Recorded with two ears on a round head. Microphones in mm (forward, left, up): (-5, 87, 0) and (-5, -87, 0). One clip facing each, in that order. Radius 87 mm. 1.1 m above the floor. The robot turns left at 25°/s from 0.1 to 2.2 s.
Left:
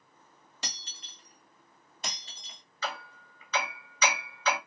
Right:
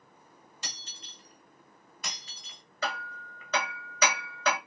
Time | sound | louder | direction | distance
0.6 | breaking glass | left 4 dB | 55° left (ahead or behind) | 1.7 m
2.8 | hammering | right 2 dB | 45° right (ahead or behind) | 2 m